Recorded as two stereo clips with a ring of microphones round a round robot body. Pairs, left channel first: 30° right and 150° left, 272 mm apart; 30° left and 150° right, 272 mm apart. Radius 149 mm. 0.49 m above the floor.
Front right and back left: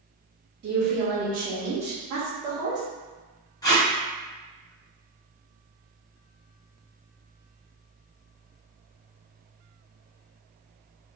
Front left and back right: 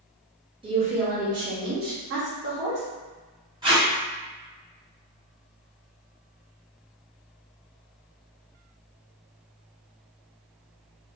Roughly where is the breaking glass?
No breaking glass in this recording.